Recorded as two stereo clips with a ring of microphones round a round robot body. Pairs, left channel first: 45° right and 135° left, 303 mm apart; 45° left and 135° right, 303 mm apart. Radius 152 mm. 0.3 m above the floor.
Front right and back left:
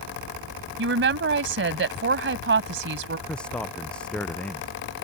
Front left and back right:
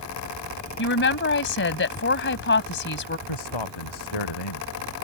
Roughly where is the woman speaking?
Left.